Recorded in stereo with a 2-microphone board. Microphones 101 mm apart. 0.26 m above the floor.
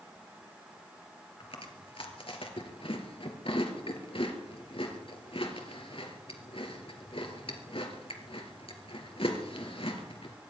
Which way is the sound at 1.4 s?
65° left (ahead or behind).